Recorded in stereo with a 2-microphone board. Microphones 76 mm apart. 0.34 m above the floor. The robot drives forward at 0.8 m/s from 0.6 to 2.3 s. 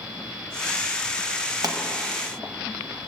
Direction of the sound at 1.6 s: 55° right (ahead or behind).